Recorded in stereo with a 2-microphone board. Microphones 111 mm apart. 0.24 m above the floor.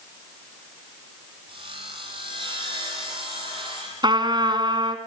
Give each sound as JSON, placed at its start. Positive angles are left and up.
{"t": 1.5, "sound": "sawing", "side_deg": -50, "distance_m": 8.5}
{"t": 4.0, "sound": "a trumpet", "side_deg": -45, "distance_m": 2.0}